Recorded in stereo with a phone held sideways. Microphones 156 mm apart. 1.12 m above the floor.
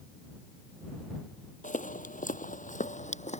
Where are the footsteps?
55° left (ahead or behind); by 3.4 s 45° left (ahead or behind).